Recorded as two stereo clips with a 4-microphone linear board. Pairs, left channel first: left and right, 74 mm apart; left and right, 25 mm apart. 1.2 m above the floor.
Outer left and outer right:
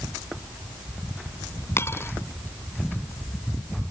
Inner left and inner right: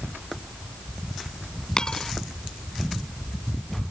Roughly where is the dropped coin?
Left.